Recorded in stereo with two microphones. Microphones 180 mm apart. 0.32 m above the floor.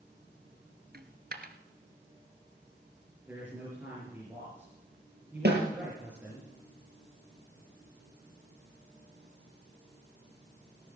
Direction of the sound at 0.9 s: 65° right (ahead or behind).